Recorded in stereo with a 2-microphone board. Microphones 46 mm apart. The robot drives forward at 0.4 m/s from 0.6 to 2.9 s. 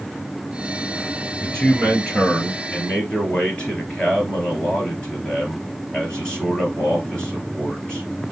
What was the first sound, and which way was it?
A man speaking, 25° left (ahead or behind).